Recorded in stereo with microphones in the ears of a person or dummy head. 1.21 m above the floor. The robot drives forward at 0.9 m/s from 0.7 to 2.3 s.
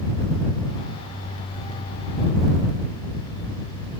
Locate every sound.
Only background noise.